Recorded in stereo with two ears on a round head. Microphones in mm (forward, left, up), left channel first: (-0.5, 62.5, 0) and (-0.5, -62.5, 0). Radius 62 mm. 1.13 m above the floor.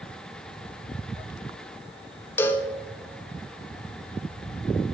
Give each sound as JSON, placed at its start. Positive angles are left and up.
{"t": 2.4, "sound": "a cowbell", "side_deg": 15, "distance_m": 0.7}